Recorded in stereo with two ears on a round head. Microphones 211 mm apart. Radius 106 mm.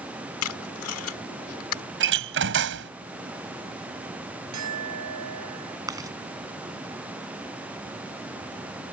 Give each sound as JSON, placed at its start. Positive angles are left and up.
{"t": 0.4, "sound": "tape being pulled", "side_deg": 60}
{"t": 2.0, "sound": "a door slam", "side_deg": -55}
{"t": 4.5, "sound": "a clink", "side_deg": -90}
{"t": 5.9, "sound": "chewing", "side_deg": -15}